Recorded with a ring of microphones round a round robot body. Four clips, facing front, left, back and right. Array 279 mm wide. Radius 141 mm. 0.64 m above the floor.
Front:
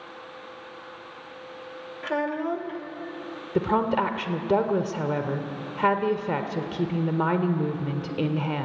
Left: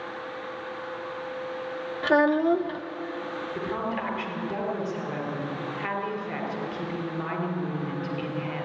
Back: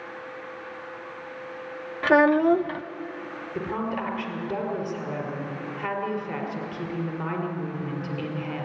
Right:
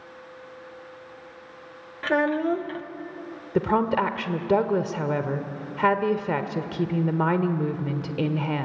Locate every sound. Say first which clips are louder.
2.0 s a child speaking: left 2 dB, back 9 dB; 165° left, 1.0 m
3.5 s a woman speaking: right 10 dB, front 7 dB; 55° right, 1.9 m